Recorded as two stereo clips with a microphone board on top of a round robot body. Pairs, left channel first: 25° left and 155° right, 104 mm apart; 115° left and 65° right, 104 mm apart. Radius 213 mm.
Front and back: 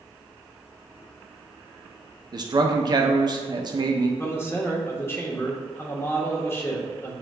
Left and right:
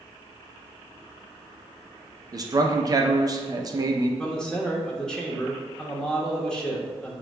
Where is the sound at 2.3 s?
115° right, 0.8 m.